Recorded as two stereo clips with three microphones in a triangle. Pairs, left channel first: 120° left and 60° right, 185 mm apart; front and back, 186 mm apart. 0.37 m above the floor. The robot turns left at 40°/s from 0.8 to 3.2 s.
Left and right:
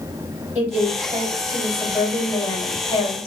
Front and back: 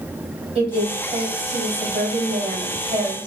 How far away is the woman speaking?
About 1.8 m.